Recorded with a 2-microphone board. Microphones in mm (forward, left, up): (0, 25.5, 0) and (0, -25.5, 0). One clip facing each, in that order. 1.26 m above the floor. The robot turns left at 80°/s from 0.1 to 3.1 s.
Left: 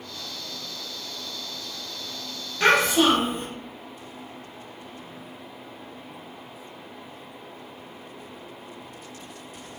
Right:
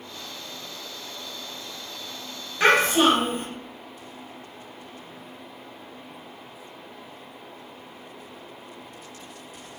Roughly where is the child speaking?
Ahead.